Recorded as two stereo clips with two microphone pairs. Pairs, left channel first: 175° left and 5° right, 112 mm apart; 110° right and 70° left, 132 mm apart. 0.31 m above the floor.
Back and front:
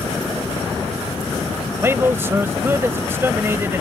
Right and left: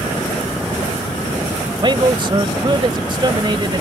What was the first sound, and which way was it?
A man speaking, 50° left.